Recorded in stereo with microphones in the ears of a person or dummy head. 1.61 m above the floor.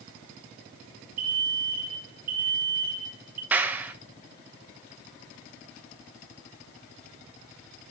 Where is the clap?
10° right (ahead or behind), 0.9 m.